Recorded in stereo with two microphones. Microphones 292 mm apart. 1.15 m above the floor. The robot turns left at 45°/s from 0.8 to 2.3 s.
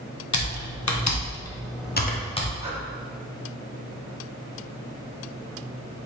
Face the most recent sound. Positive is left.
turn(degrees=-20)  # may be behind; listen again after turning